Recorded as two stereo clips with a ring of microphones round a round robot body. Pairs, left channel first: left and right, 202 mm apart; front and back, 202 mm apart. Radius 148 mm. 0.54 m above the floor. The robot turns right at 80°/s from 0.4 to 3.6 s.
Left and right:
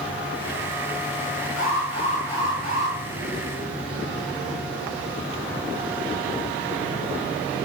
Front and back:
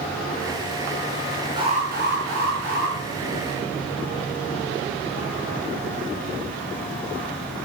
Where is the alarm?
110° left, 6 m; by 3.0 s 135° right, 6 m.